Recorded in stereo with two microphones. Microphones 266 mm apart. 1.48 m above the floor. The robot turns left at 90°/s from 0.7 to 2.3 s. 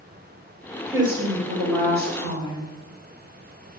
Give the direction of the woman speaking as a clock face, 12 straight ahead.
12 o'clock.